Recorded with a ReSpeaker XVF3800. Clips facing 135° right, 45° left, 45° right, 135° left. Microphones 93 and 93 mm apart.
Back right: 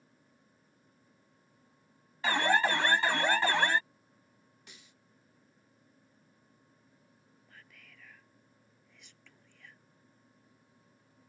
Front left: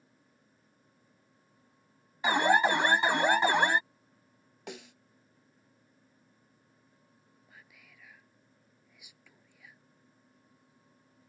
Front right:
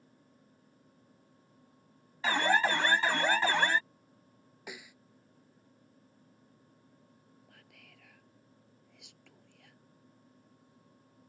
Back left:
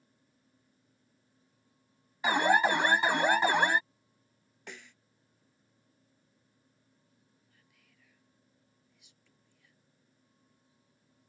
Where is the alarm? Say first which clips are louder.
Front left 3 dB, back left 3 dB; 85° left.